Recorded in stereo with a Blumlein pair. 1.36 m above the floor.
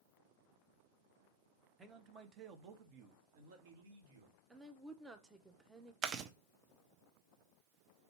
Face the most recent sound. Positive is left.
turn(degrees=-30)